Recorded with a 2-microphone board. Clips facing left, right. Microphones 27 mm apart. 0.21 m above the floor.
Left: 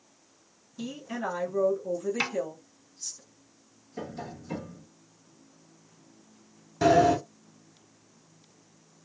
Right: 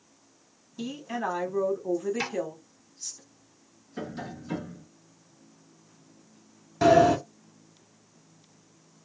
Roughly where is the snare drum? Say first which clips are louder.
Left 2 dB; left.